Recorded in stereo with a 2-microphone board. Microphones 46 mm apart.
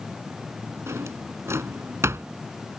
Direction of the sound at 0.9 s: 80° right.